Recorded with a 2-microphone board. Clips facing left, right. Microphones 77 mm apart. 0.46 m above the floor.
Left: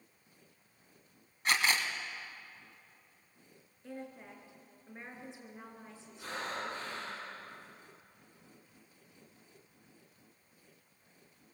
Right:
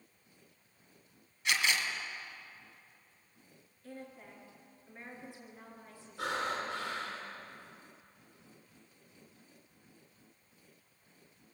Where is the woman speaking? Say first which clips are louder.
Left 3 dB; 20° left (ahead or behind), 5 m.